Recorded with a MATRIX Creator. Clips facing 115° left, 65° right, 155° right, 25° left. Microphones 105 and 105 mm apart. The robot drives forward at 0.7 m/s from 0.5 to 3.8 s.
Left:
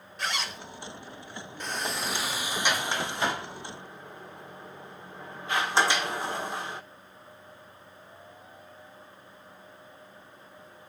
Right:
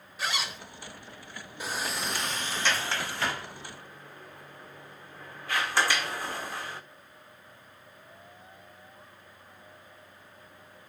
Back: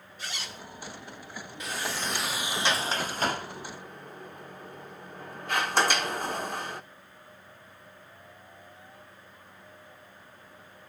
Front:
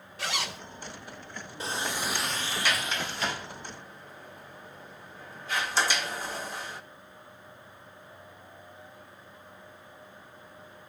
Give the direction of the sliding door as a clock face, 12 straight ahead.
12 o'clock.